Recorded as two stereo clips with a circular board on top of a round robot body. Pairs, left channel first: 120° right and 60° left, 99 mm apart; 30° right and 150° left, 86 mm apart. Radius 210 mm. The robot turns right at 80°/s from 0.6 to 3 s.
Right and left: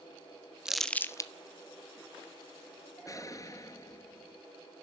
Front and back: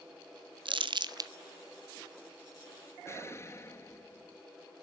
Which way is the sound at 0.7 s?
140° left.